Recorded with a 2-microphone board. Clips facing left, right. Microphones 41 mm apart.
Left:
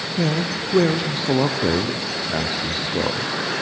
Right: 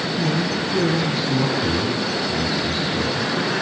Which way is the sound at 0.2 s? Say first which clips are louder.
Left 2 dB; 55° left (ahead or behind).